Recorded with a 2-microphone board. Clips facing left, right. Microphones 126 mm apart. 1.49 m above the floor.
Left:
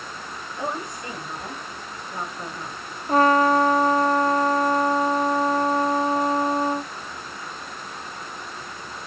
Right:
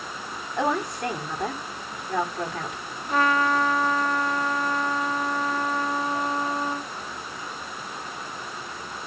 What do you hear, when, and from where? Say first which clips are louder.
0.6 s a woman speaking: right 6 dB; 85° right, 8 m
3.1 s a trumpet: left 5 dB; 40° left (ahead or behind), 1.1 m